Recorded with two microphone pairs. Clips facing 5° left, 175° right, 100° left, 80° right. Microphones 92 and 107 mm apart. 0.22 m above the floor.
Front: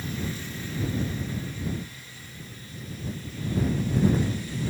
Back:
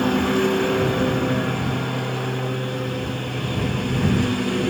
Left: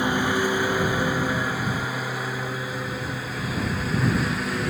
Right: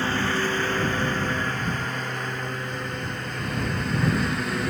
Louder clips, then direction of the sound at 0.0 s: Back 16 dB, left 2 dB; 175° left.